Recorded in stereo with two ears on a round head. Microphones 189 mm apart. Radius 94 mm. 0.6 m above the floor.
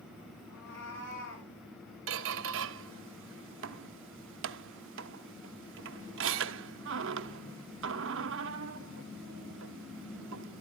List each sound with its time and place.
0.5 s a cat meowing: 60° left (ahead or behind), 8.5 m; by 1.5 s 65° left (ahead or behind), 8.5 m
2.1 s a squeak: 65° right (ahead or behind), 0.7 m